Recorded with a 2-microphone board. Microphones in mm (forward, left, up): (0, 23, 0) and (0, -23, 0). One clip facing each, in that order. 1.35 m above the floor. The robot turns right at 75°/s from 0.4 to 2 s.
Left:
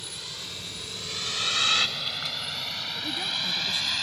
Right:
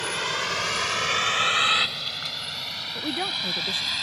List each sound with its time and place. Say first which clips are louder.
0.0 s a vehicle: right 13 dB; 70° right (ahead or behind); by 4.0 s 5° right (ahead or behind)
3.0 s a woman speaking: right 4 dB; 40° right (ahead or behind)